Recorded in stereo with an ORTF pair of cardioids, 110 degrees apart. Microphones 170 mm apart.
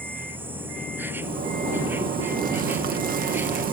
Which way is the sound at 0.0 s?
15° right.